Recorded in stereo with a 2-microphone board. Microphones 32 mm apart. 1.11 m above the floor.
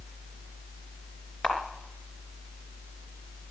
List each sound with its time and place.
1.4 s a camera shutter: 35° left (ahead or behind), 3 m